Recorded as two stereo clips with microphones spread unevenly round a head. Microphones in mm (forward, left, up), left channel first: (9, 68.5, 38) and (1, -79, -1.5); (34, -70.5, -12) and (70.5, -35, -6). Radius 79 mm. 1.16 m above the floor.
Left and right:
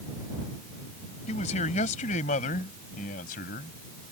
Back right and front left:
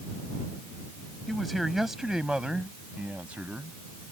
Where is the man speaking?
135° left; by 4.1 s 120° left.